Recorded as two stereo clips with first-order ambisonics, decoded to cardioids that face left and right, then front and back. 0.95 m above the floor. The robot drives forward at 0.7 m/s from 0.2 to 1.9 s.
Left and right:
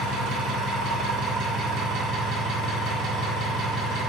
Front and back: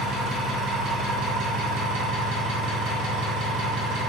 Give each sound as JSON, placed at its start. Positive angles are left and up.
{"t": 0.0, "sound": "an engine running", "azimuth_deg": -115, "distance_m": 1.8}